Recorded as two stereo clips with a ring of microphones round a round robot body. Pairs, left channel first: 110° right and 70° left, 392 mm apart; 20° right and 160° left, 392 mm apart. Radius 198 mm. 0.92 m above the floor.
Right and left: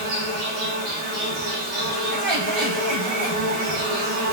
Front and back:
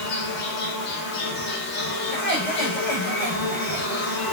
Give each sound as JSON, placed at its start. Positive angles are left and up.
{"t": 0.0, "sound": "an insect", "azimuth_deg": 40, "distance_m": 0.7}
{"t": 2.1, "sound": "laughter", "azimuth_deg": 40, "distance_m": 1.4}